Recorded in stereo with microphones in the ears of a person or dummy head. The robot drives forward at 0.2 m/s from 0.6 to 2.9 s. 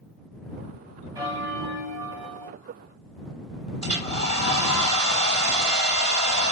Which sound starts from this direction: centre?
A bell, at 1.1 s.